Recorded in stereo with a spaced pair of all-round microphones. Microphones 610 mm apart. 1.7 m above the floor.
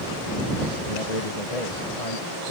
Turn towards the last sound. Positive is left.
turn(degrees=80)